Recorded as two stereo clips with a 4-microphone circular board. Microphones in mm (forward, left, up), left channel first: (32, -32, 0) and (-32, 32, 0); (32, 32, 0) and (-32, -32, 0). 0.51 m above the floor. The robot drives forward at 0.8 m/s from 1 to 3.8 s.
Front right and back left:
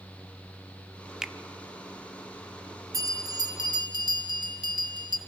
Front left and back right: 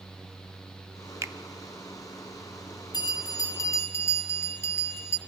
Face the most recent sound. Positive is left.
turn(degrees=105)